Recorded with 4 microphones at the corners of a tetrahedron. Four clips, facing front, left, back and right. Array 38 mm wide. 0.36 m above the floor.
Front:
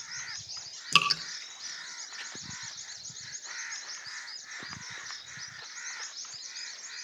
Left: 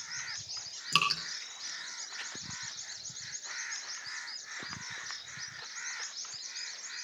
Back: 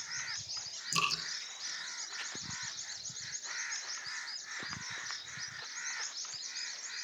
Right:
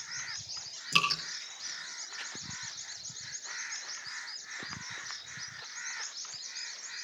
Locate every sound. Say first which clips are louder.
0.9 s dripping: right 1 dB, front 8 dB; 5° left, 3.5 m